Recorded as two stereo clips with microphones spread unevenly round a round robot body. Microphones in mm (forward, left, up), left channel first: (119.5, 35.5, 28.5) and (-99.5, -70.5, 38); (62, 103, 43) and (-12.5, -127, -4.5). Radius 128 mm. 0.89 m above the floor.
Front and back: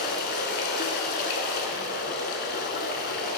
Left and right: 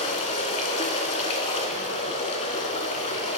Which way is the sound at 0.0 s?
55° left.